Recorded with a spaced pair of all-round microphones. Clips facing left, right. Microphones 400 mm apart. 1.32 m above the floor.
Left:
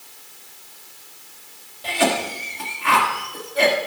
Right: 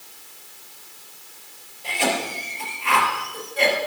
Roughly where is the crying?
I don't hear crying.